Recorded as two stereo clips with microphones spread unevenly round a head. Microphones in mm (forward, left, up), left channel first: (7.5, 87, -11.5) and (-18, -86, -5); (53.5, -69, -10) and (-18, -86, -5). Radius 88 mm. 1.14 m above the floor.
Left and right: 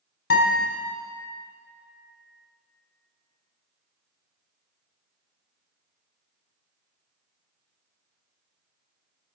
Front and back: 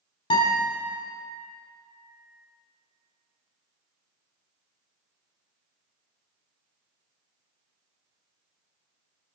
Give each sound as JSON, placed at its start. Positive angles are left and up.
{"t": 0.3, "sound": "a guitar", "azimuth_deg": 45, "distance_m": 3.0}